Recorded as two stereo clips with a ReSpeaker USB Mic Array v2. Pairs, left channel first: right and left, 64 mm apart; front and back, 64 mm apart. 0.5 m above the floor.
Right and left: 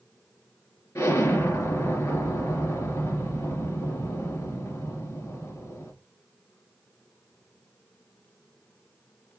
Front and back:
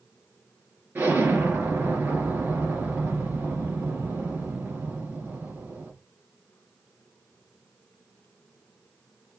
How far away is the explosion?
About 2.5 m.